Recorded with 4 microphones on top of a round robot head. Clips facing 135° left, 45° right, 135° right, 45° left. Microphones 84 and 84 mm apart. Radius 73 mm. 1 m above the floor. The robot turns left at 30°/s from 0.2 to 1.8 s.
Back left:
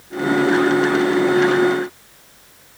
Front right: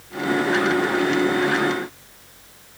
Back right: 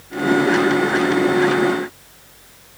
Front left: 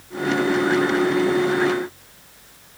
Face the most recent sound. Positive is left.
No sound to turn to.